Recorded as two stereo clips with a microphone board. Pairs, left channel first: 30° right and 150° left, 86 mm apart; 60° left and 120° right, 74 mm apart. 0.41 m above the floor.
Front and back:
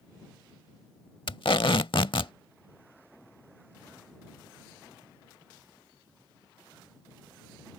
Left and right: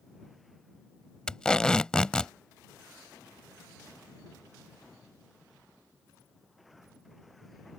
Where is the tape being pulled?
15° right.